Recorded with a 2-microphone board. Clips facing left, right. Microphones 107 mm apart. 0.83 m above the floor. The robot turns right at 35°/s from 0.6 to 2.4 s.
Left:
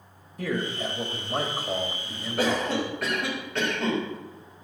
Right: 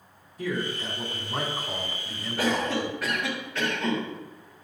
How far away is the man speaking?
About 1.7 m.